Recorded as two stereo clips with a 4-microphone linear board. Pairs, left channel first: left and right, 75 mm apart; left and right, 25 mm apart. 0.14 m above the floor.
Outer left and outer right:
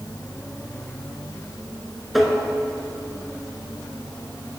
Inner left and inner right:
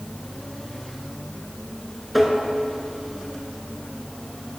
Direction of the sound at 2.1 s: Centre (ahead or behind).